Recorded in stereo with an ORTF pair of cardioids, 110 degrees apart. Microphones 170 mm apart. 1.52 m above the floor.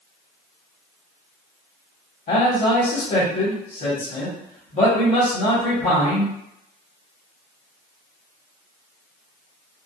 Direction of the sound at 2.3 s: 50° left.